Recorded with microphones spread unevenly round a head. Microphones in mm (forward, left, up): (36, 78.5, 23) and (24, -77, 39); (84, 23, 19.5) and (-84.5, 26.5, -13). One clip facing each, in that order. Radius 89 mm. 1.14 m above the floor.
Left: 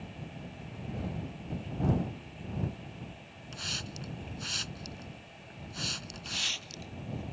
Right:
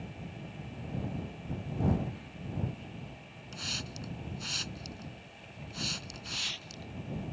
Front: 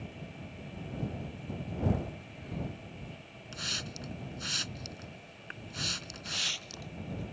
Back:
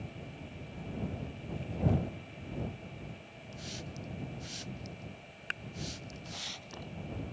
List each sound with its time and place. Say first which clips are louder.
3.5 s a hiss: even, front 1 dB; 5° right
6.2 s a hiss: left 1 dB, front 1 dB; 50° left